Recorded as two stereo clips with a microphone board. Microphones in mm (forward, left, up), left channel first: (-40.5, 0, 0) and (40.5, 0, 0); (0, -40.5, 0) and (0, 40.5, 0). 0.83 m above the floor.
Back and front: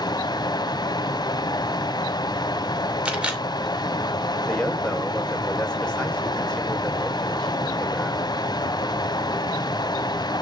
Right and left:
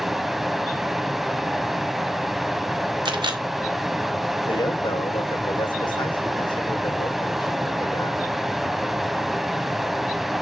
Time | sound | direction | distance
0.0 | running water | straight behind | 1.1 m
3.0 | a camera shutter | 75° left | 2.5 m
4.5 | a man speaking | 105° right | 3.5 m